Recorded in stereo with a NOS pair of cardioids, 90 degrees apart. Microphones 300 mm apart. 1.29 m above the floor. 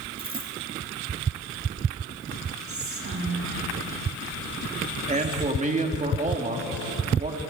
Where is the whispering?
45° right, 3.5 m.